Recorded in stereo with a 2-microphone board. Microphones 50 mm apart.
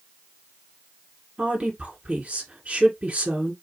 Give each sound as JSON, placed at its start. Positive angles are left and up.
{"t": 1.4, "sound": "a woman speaking", "side_deg": -25, "distance_m": 1.8}